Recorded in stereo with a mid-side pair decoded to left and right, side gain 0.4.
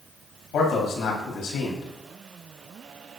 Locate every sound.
0.5 s a man speaking: 70° left, 4.5 m